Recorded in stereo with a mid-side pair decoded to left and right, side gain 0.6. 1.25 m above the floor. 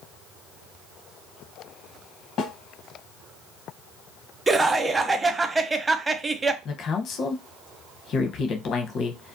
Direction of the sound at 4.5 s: 20° right.